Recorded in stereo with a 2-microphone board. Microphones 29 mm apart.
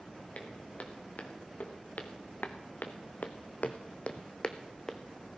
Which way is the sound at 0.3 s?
55° left (ahead or behind).